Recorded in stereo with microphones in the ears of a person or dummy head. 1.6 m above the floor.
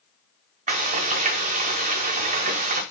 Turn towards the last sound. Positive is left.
turn(degrees=-40)  # may be behind; listen again after turning